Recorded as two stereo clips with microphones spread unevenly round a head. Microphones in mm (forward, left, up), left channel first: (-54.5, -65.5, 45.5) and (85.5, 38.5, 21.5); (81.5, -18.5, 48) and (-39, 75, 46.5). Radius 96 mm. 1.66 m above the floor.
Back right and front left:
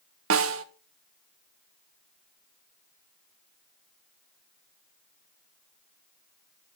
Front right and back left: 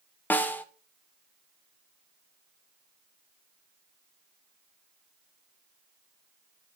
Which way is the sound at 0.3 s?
40° left.